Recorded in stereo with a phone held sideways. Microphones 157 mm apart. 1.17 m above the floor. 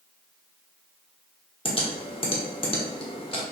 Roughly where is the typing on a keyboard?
Left.